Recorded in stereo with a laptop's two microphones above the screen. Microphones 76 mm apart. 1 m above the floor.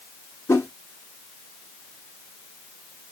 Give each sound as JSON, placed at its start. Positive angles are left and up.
{"t": 0.5, "sound": "a whoosh", "side_deg": 35, "distance_m": 2.0}